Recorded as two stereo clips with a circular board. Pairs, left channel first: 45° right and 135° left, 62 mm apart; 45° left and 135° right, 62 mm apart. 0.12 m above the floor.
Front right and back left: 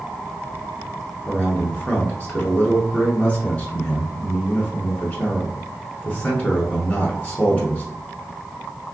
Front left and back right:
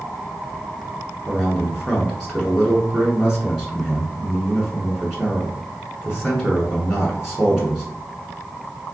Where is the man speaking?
65° right, 1.1 m.